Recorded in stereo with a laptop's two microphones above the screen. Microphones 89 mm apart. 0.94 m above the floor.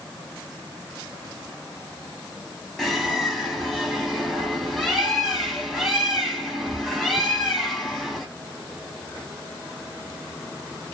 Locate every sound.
2.8 s a bird: centre (ahead or behind), 0.8 m